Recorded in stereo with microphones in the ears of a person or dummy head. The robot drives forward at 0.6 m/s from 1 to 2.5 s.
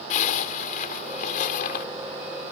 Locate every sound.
0.1 s a zipper: 60° left (ahead or behind); by 1.9 s 70° left (ahead or behind)